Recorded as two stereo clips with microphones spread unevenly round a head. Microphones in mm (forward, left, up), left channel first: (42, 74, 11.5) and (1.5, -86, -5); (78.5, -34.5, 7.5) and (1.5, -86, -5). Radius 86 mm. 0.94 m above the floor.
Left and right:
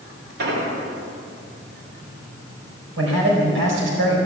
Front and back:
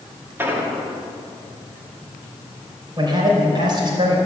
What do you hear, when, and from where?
0.4 s an explosion: 80° right, 1.9 m
3.0 s a man speaking: 105° right, 4 m